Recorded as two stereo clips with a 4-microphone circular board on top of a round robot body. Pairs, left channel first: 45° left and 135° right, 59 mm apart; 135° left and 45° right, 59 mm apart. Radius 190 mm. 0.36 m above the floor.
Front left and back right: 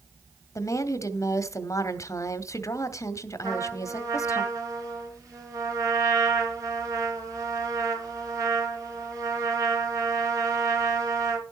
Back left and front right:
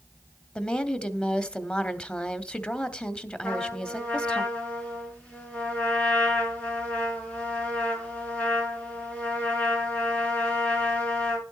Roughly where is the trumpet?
Behind.